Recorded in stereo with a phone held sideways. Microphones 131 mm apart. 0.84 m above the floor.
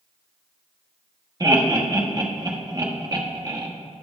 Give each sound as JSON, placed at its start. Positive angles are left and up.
{"t": 1.4, "sound": "laughter", "side_deg": -30, "distance_m": 1.0}